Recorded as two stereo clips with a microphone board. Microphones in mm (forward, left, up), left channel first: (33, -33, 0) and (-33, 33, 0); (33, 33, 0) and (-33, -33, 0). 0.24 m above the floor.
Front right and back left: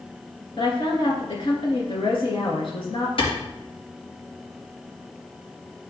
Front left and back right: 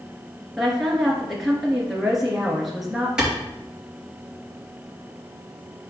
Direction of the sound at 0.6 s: 45° right.